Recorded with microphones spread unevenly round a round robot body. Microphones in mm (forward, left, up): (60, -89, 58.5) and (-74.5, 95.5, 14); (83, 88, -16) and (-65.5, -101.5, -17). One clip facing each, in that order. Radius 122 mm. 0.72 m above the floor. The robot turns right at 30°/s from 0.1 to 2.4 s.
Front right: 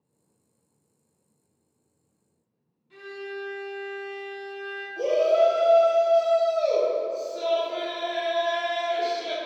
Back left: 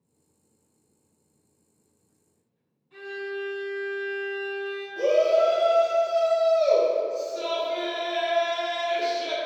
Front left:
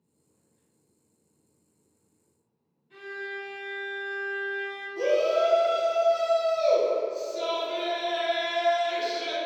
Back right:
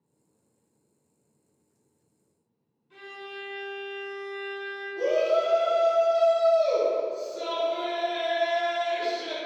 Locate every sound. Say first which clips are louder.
2.9 s a violin: back left 3 dB, front left 4 dB; 50° right, 1.0 m
5.0 s a shout: back left 1 dB, front left 1 dB; 60° left, 0.7 m